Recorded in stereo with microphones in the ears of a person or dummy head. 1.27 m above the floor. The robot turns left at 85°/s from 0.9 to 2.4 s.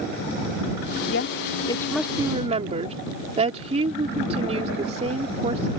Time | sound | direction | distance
1.1 | a woman speaking | 80° left | ?